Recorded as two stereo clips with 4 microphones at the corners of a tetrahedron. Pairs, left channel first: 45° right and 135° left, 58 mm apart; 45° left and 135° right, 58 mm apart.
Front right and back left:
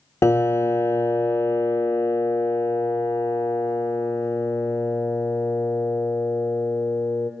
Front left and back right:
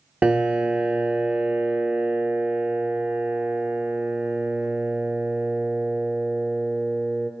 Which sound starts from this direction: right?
A piano, at 0.2 s.